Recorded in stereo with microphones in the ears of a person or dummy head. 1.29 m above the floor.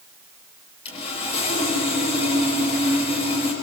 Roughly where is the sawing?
Left.